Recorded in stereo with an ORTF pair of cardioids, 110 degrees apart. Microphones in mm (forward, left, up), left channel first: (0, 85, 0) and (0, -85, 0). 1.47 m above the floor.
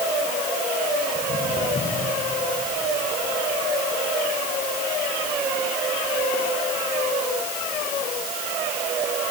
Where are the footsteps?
40° left, 7.5 m; by 8.6 s 75° left, 9.5 m.